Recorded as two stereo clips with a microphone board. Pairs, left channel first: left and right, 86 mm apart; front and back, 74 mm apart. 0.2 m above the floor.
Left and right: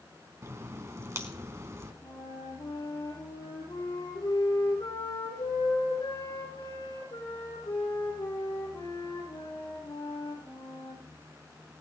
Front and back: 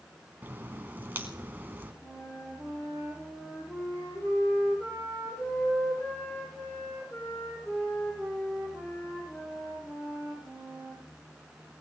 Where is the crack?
130° right, 1.6 m.